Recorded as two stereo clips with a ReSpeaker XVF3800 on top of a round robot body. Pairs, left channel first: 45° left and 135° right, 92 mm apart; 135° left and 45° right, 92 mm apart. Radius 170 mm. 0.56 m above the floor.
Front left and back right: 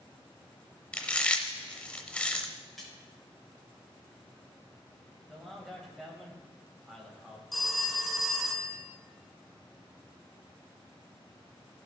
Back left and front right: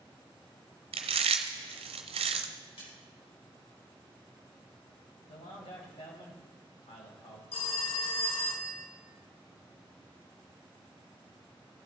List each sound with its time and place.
0.9 s chewing: 35° right, 0.6 m
2.8 s a splash: 130° left, 4.5 m
5.3 s a man speaking: 135° left, 3 m
7.5 s a phone ringing: 135° left, 1.4 m